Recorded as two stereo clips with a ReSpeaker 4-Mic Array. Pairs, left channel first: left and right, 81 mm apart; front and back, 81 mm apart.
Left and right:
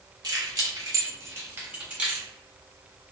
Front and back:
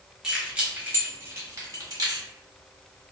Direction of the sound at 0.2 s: 100° right.